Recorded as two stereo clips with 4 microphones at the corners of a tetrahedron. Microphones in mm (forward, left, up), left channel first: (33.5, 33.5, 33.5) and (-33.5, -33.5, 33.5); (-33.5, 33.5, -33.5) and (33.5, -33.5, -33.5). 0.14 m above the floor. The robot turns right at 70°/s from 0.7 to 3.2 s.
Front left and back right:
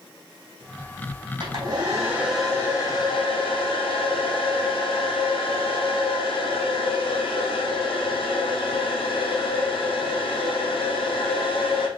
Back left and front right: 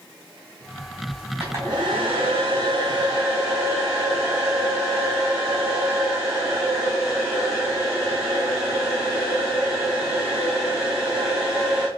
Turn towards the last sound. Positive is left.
turn(degrees=15)